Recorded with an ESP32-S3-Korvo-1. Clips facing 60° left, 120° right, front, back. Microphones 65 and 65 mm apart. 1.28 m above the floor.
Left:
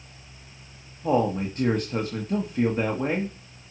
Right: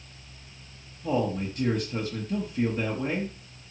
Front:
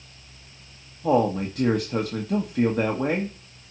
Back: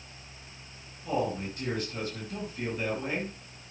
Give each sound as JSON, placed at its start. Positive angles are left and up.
{"t": 1.0, "sound": "a man speaking", "azimuth_deg": 10, "distance_m": 1.4}